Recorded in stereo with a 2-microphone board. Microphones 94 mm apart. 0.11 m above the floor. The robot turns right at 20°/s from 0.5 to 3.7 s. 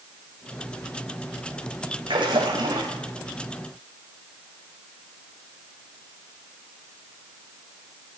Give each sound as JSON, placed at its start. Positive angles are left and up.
{"t": 2.1, "sound": "a splash", "side_deg": -60, "distance_m": 7.0}